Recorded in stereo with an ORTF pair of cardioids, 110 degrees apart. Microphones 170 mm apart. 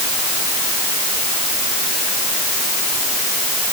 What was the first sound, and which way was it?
Only background noise.